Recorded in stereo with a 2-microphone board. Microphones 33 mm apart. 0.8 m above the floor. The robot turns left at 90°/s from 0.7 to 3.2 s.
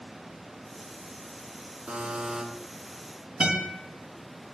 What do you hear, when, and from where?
1.9 s a buzzer: 100° right, 2.5 m; by 2.4 s 150° right, 2.5 m
3.4 s a guitar: 20° right (ahead or behind), 5 m